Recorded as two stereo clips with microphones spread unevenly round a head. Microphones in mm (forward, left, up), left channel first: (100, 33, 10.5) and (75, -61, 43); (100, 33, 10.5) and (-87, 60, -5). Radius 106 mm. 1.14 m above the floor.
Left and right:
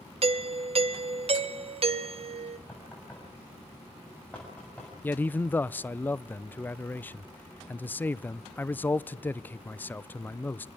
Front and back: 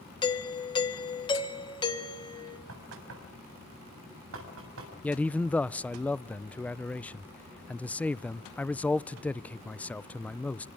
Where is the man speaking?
75° left, 0.5 m.